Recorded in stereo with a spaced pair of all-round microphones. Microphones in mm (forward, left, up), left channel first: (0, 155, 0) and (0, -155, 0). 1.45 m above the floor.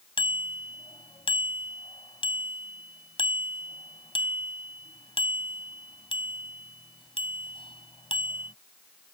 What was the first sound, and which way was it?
A bicycle bell, 15° left (ahead or behind).